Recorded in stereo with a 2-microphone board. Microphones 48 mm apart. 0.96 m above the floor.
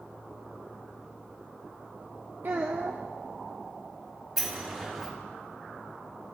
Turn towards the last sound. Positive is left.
turn(degrees=-10)  # may be behind; listen again after turning